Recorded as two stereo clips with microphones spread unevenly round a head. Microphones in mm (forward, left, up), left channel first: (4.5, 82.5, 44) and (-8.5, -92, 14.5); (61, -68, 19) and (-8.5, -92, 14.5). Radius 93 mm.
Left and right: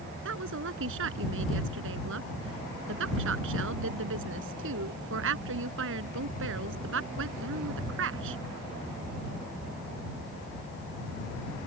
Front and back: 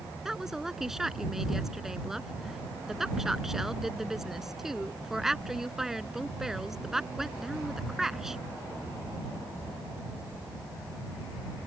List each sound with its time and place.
0.2 s a woman speaking: 75° right